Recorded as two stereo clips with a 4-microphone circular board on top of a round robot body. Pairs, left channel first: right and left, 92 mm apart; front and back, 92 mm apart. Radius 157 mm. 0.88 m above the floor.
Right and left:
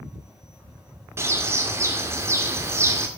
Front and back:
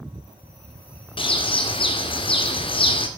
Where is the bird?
25° left, 1.8 m.